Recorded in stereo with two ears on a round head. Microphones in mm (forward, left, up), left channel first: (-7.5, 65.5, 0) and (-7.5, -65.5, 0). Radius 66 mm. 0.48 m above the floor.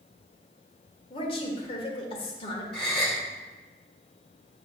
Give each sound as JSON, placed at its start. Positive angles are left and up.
{"t": 1.1, "sound": "a woman speaking", "side_deg": 40, "distance_m": 1.5}
{"t": 2.7, "sound": "a gasp", "side_deg": 5, "distance_m": 1.6}